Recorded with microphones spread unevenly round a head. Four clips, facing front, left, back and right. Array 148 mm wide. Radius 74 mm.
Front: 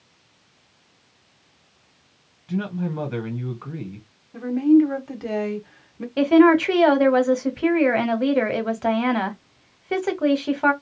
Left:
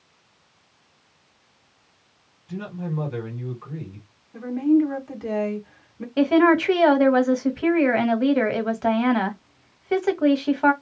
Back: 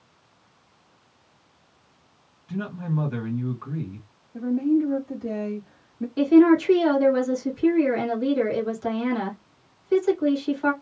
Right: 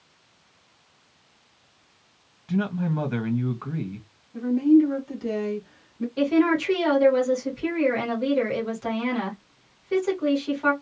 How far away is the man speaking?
About 1.6 m.